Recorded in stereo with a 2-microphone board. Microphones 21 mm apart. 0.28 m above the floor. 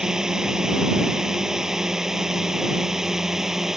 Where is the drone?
30° right (ahead or behind); by 3.8 s 20° right (ahead or behind).